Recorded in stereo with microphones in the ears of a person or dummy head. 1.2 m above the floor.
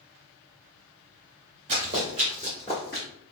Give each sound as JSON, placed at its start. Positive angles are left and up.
{"t": 1.7, "sound": "running footsteps", "side_deg": -25, "distance_m": 1.3}